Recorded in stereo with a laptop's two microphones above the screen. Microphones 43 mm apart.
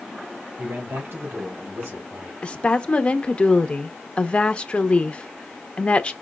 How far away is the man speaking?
About 3.5 m.